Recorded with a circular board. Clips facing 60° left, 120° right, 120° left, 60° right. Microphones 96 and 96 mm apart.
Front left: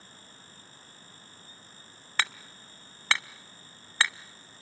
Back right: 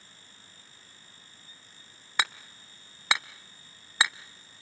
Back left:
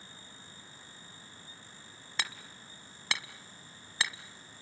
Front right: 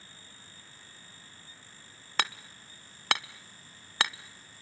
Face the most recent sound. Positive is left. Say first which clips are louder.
# back right 1 dB, front right 7 dB
turn(degrees=-45)